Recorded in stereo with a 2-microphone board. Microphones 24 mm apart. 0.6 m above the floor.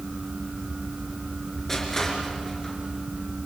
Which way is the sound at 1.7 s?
15° left (ahead or behind).